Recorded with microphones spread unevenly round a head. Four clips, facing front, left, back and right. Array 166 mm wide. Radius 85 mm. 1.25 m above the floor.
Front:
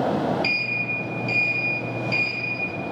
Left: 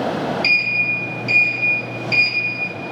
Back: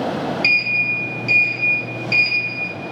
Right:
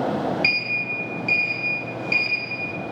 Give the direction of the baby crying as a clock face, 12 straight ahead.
No baby crying in this recording.